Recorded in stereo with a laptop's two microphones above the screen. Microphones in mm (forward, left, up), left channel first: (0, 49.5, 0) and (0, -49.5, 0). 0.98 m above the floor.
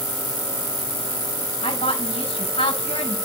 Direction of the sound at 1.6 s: 75° left (ahead or behind).